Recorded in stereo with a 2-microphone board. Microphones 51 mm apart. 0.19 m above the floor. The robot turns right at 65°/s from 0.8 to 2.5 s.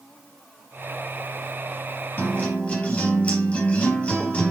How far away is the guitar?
About 4 m.